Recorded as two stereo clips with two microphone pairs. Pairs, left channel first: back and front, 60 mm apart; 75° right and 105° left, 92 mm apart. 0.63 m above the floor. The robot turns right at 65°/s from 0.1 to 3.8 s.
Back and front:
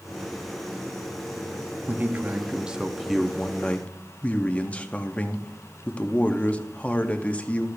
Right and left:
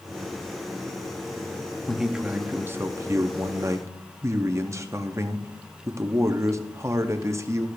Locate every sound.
1.9 s a man speaking: 5° left, 0.6 m; by 7.7 s 130° left, 0.6 m